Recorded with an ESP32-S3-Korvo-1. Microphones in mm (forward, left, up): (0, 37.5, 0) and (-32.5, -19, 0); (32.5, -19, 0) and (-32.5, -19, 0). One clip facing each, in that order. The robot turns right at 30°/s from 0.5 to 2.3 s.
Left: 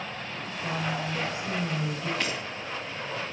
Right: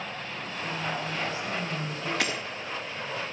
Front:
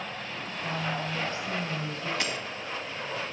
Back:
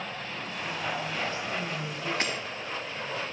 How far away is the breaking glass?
About 3 m.